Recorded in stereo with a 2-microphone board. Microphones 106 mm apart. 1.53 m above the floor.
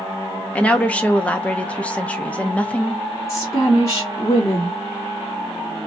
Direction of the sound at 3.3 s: 25° left (ahead or behind).